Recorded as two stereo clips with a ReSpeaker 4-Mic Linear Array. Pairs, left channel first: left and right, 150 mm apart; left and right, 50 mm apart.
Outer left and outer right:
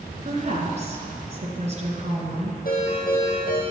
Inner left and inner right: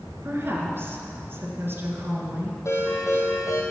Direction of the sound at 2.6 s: 75° left (ahead or behind).